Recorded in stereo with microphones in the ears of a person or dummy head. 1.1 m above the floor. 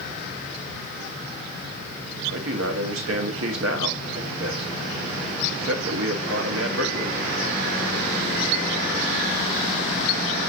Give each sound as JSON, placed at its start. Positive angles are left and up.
{"t": 2.3, "sound": "a man speaking", "side_deg": -75, "distance_m": 1.9}